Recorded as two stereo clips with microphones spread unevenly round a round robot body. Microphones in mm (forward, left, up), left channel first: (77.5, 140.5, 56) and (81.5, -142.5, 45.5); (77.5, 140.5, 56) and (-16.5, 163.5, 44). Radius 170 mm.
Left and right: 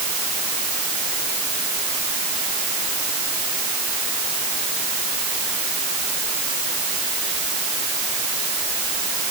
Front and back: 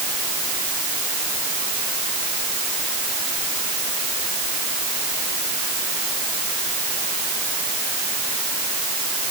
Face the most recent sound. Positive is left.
No sound to turn to.